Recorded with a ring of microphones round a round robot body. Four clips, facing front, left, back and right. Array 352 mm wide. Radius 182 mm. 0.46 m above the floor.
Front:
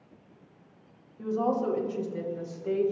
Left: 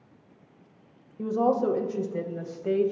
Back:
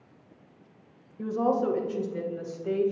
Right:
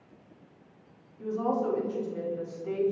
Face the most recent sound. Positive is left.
turn(degrees=90)